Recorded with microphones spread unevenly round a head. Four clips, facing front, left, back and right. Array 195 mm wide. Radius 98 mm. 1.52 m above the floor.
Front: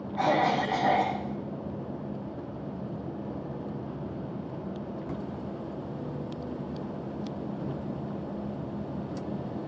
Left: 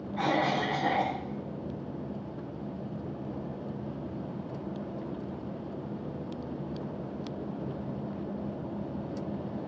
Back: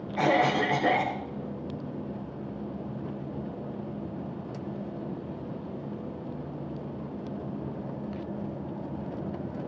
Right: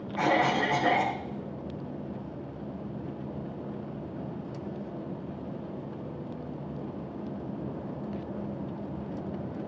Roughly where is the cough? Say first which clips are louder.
Right 3 dB, back 1 dB; behind.